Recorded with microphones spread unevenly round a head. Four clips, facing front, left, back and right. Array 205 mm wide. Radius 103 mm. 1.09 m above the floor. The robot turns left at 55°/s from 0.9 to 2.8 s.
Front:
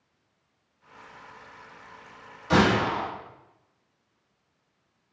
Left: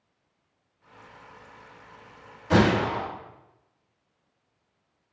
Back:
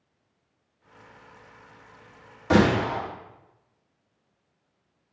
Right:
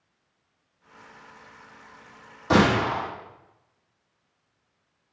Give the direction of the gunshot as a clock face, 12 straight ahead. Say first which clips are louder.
Right 1 dB, back 1 dB; 5 o'clock.